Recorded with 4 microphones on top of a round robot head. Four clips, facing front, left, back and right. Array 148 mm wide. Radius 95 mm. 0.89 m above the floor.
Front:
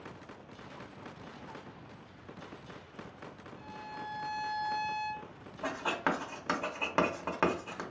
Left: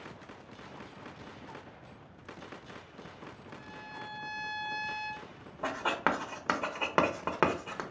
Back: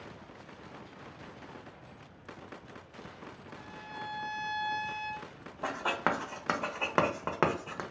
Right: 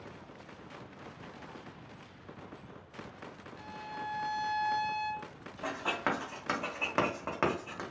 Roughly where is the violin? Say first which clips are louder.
Right 6 dB, front 1 dB; right.